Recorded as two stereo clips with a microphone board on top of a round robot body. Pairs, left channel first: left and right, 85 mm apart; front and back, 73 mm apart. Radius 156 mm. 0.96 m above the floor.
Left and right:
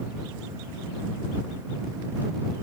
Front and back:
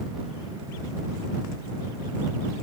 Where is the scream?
I don't hear a scream.